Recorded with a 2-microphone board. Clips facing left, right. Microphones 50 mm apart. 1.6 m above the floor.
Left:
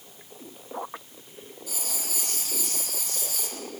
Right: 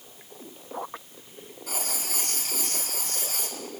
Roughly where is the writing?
Right.